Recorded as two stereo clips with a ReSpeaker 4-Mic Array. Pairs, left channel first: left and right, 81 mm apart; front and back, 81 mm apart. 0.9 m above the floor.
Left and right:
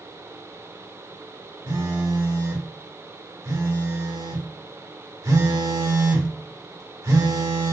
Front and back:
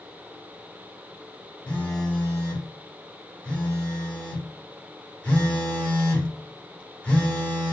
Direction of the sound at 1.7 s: 70° right.